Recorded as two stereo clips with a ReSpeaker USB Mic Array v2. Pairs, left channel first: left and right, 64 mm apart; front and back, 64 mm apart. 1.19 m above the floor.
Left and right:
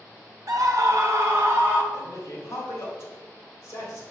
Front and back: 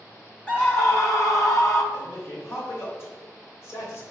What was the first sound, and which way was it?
A scream, 70° right.